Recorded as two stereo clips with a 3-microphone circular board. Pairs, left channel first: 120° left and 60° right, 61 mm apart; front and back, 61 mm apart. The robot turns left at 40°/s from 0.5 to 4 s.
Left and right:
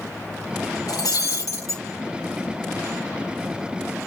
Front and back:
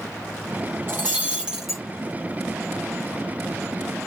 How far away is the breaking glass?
About 3 m.